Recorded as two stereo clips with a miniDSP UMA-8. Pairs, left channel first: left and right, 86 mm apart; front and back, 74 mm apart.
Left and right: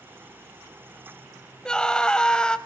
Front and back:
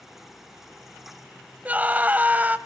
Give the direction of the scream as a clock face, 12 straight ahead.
7 o'clock.